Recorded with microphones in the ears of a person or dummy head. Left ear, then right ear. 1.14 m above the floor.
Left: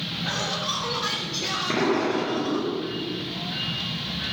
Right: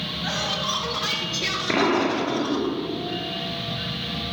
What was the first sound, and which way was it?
Laughter, 10° right (ahead or behind).